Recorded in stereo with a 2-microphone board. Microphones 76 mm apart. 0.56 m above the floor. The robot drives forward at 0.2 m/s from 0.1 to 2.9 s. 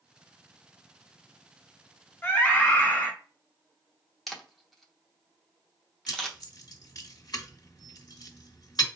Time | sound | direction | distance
2.2 | a scream | 25° left (ahead or behind) | 1.2 m
4.3 | a camera shutter | centre (ahead or behind) | 0.8 m
6.1 | keys jangling | 60° left (ahead or behind) | 1.3 m